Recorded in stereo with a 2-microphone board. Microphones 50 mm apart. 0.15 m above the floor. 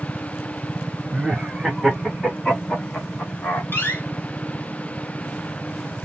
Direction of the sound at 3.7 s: 45° left (ahead or behind).